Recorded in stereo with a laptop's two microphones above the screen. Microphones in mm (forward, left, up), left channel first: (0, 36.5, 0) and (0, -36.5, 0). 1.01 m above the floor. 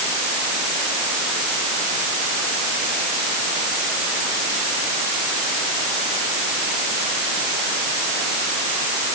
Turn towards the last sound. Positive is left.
No sound to turn to.